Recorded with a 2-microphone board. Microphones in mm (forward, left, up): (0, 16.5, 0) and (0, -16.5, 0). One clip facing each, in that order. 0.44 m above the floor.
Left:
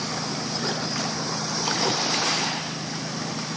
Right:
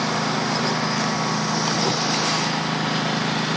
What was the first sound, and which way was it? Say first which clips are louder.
A lawn mower: right 7 dB; 60° right (ahead or behind).